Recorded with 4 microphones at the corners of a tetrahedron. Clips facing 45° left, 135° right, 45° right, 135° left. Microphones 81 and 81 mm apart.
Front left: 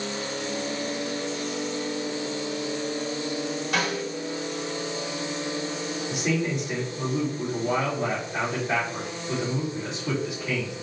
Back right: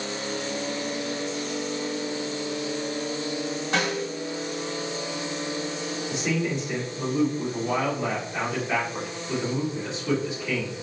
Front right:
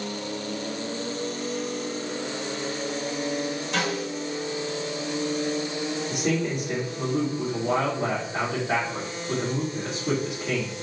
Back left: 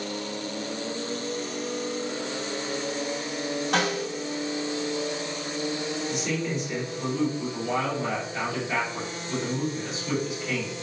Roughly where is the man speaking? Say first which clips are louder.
Even, front right 5 dB; ahead right.